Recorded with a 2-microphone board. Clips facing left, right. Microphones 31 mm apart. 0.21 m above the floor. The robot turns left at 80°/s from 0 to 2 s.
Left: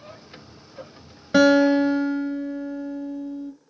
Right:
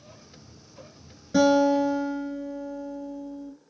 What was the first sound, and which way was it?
A guitar, 85° left.